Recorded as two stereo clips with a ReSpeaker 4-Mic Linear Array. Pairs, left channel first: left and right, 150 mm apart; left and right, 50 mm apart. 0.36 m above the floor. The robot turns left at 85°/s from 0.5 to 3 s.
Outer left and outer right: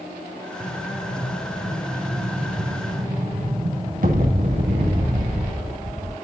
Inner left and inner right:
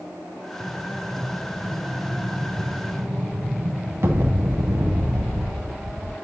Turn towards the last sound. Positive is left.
turn(degrees=-100)